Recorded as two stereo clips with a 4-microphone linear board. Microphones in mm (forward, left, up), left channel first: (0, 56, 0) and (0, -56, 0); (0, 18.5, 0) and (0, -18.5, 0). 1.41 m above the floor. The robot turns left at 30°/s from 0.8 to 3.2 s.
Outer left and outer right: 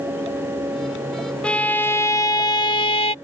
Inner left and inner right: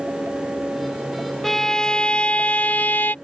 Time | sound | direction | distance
1.4 | a violin | 170° left | ?